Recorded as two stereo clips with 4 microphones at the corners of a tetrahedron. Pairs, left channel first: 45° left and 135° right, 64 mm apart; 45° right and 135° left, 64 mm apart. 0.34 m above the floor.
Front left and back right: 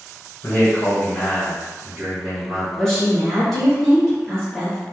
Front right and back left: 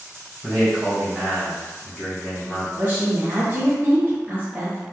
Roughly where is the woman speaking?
Behind left.